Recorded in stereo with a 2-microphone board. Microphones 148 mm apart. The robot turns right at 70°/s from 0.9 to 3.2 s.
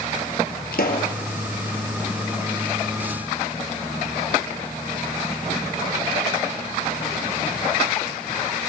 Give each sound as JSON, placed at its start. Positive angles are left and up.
{"t": 0.7, "sound": "a pop", "side_deg": 80, "distance_m": 2.0}